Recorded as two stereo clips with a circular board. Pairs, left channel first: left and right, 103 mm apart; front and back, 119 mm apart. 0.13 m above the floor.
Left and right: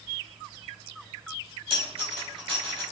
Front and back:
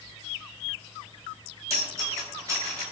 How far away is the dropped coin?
About 1.7 m.